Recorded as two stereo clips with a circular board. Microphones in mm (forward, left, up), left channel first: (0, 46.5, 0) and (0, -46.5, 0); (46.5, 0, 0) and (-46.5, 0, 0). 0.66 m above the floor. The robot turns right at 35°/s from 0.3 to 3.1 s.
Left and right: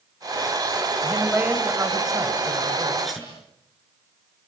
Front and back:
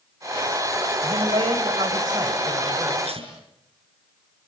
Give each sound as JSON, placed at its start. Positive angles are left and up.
{"t": 1.0, "sound": "a man speaking", "azimuth_deg": 180, "distance_m": 3.5}
{"t": 3.0, "sound": "tape being pulled", "azimuth_deg": 180, "distance_m": 7.0}